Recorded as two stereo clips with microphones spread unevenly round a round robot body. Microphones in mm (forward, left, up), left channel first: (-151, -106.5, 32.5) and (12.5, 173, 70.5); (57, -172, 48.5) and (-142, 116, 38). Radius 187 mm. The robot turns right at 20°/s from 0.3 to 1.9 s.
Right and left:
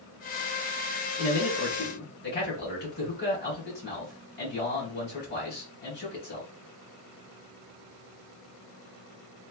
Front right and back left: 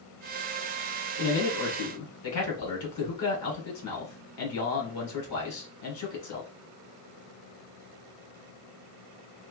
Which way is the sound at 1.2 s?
80° right.